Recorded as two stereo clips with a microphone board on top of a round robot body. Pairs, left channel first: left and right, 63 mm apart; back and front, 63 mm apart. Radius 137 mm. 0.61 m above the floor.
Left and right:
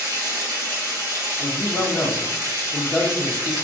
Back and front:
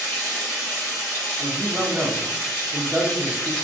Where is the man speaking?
40° left, 0.9 m.